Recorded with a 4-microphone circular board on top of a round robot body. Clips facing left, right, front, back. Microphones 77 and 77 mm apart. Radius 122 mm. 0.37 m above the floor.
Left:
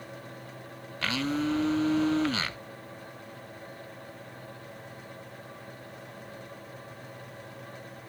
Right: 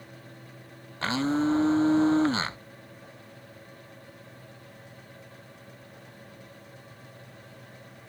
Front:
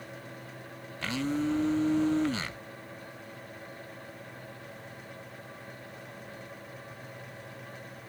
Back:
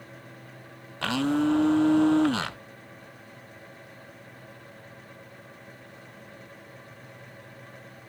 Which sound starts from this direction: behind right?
A blender, at 1.0 s.